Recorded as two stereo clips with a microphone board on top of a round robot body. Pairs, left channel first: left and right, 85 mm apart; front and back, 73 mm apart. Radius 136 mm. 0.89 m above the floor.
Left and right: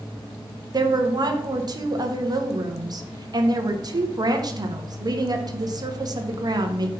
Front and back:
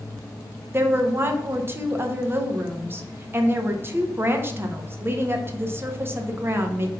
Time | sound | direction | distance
0.7 | a woman speaking | 125° right | 1.3 m